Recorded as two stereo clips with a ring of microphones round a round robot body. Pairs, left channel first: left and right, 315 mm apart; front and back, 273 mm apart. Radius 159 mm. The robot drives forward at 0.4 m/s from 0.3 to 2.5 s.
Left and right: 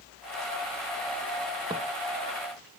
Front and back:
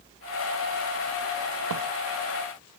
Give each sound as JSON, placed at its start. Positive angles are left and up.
{"t": 1.7, "sound": "footsteps", "azimuth_deg": -170, "distance_m": 1.1}